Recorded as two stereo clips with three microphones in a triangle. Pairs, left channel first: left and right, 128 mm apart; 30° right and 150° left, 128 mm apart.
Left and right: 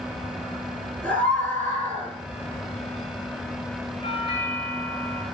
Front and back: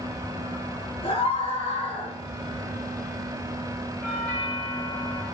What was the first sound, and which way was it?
A scream, 15° left.